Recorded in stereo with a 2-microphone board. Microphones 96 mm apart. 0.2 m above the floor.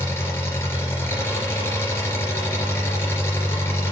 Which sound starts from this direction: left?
An engine running, at 0.0 s.